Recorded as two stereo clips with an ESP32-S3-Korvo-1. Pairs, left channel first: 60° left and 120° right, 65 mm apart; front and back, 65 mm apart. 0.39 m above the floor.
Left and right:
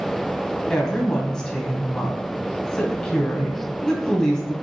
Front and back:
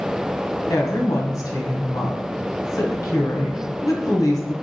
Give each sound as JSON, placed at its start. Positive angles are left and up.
{"t": 0.7, "sound": "a woman speaking", "azimuth_deg": -20, "distance_m": 2.0}